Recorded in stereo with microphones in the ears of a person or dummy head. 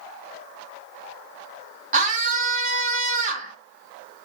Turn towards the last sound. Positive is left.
turn(degrees=-40)  # may be behind; listen again after turning